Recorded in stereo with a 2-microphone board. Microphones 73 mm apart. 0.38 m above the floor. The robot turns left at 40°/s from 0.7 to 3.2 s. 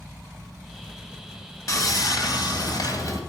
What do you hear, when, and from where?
1.7 s sawing: 120° left, 1.7 m; by 3.2 s 60° left, 1.7 m